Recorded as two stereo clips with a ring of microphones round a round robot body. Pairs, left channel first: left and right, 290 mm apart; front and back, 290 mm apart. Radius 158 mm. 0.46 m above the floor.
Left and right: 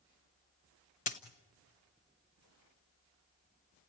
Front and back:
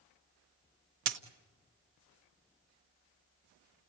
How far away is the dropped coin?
About 1.0 m.